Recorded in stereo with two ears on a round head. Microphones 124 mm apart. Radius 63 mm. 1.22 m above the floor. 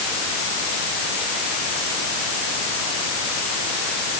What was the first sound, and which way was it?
Only background noise.